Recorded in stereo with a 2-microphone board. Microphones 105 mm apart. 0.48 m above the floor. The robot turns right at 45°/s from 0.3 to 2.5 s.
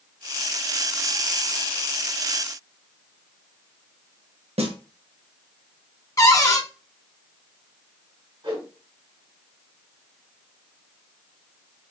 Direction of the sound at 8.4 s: 55° right (ahead or behind).